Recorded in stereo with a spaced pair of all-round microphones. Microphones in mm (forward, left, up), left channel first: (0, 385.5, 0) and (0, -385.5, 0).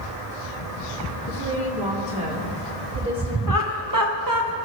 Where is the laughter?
30° right (ahead or behind), 0.7 m.